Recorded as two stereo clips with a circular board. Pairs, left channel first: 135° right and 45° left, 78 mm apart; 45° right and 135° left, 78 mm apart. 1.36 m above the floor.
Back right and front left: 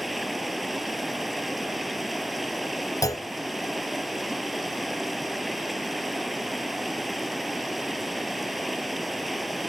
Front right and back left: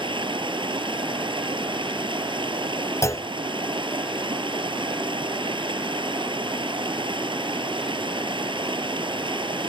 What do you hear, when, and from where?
0.0 s running water: 135° left
3.0 s a clunk: 95° right